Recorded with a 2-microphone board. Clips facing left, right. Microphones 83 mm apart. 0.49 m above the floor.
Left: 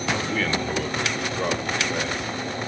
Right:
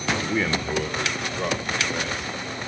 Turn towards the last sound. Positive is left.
turn(degrees=15)  # may be behind; listen again after turning